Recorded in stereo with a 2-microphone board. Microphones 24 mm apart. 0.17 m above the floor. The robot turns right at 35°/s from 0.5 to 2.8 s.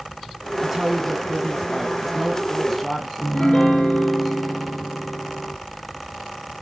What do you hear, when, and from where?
0.6 s a woman speaking: 15° right (ahead or behind), 1.2 m; by 3.1 s 5° left (ahead or behind), 1.2 m
3.2 s a piano: 50° left (ahead or behind), 1.7 m